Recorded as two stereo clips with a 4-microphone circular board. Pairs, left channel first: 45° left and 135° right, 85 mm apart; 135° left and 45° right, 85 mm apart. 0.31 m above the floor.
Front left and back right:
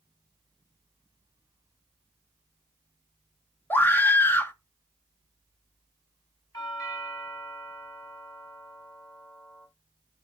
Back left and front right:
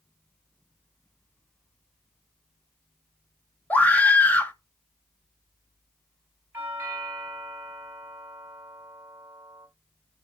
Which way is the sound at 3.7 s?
85° left.